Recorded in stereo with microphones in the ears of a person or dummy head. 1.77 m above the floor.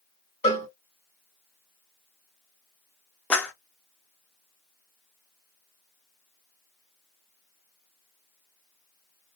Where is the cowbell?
35° left (ahead or behind), 1.9 m.